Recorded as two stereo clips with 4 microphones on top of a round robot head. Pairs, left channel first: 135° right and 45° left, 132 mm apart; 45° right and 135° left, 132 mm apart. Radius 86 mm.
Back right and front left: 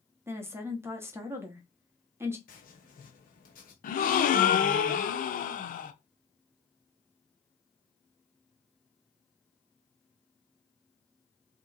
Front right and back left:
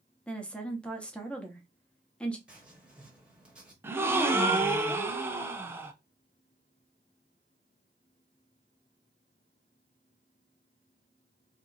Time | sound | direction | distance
0.3 | a woman speaking | 20° left | 1.0 m
2.5 | writing | 145° right | 1.2 m
3.8 | a gasp | 155° right | 0.5 m